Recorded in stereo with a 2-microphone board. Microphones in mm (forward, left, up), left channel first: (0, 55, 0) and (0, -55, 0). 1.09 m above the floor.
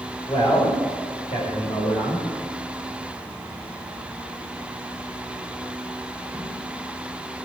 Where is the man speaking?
50° left (ahead or behind), 5 m; by 2.2 s 65° left (ahead or behind), 5.5 m.